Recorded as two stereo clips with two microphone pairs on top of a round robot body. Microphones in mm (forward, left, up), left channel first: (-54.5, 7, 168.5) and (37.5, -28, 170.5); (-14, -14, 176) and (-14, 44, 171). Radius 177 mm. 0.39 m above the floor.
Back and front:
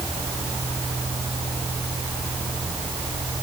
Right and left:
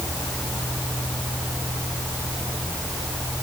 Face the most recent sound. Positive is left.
No sound to turn to.